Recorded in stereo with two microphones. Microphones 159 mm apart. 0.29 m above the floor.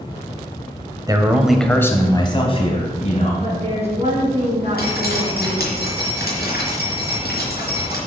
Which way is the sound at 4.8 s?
75° left (ahead or behind).